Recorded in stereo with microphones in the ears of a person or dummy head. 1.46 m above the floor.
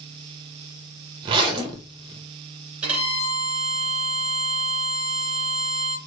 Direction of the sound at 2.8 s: 5° right (ahead or behind).